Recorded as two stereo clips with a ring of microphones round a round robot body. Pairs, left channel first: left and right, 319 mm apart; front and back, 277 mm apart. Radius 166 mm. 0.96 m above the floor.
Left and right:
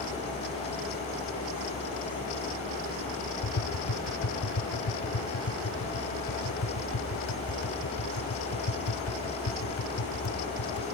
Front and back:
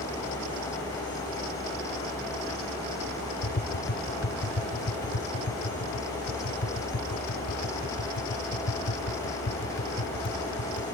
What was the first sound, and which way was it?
Tapping, 45° left.